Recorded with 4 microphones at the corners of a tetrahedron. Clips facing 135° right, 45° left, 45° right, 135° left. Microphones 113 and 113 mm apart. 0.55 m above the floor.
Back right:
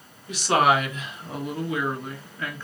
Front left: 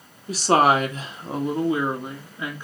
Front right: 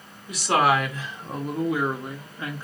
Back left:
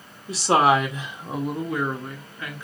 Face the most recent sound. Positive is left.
turn(degrees=-20)